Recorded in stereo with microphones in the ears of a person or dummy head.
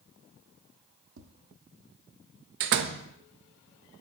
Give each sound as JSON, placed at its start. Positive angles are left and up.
{"t": 1.2, "sound": "tapping", "side_deg": -70, "distance_m": 1.0}
{"t": 2.6, "sound": "a door slam", "side_deg": -60, "distance_m": 0.7}